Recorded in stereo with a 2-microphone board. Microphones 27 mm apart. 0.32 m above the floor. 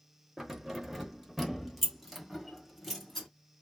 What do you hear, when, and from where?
0.4 s keys jangling: 15° right (ahead or behind), 0.7 m; by 3.3 s centre (ahead or behind), 1.5 m